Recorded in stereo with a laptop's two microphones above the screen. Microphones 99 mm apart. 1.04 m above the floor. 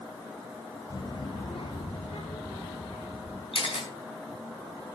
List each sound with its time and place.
0.9 s a child speaking: 35° left (ahead or behind), 1.2 m; by 3.4 s 85° left, 4.5 m
3.5 s a camera shutter: 65° left (ahead or behind), 5 m